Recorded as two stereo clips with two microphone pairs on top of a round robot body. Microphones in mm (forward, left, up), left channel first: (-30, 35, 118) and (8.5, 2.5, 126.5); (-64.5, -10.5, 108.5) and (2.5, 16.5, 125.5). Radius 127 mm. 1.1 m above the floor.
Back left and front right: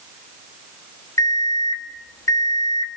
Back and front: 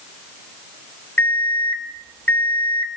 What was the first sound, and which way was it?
An alarm clock, 130° left.